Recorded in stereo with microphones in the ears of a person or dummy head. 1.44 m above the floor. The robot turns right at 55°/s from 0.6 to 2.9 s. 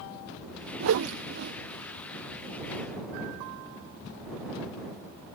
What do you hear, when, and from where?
0.8 s a whoosh: 75° right (ahead or behind); by 1.5 s 50° right (ahead or behind)